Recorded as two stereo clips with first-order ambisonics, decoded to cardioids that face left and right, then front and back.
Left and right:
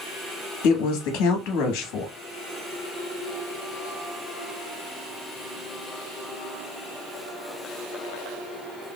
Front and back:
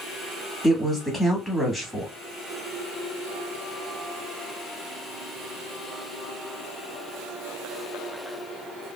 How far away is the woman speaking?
About 1.4 m.